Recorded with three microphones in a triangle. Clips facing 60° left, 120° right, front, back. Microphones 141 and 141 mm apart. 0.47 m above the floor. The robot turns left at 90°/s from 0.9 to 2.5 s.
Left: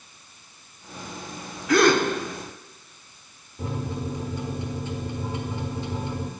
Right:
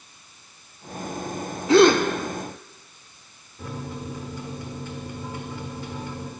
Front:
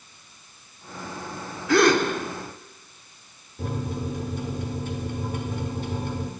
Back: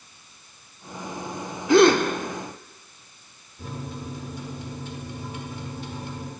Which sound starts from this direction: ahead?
A microwave, at 3.6 s.